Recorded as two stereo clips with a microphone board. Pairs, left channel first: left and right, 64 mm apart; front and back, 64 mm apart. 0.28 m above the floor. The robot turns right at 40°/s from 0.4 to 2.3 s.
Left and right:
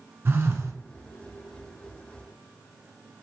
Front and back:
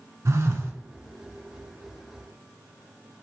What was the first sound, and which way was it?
A phone buzzing, 140° right.